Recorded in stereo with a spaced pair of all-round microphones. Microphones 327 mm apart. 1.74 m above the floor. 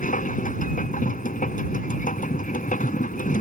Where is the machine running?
25° left (ahead or behind).